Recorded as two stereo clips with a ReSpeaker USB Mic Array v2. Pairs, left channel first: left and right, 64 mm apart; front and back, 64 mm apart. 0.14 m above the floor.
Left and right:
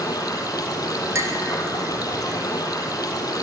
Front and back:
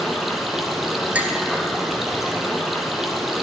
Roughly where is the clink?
Behind right.